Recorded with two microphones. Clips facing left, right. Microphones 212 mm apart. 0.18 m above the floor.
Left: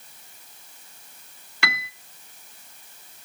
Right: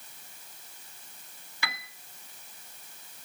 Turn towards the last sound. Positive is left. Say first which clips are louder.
# left 8 dB
turn(degrees=75)  # may be behind; listen again after turning